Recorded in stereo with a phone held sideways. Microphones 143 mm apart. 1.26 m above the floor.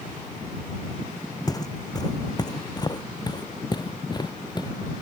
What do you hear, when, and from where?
1.5 s footsteps: 25° left (ahead or behind); by 4.7 s 30° left (ahead or behind)